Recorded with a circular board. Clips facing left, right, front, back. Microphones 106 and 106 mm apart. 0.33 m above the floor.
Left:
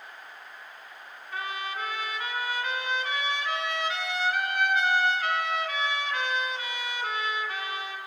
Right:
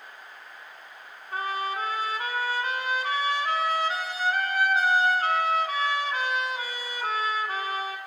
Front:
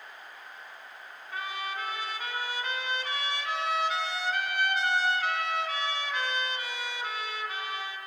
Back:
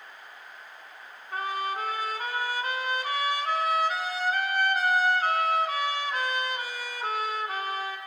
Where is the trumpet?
140° right, 2.5 m.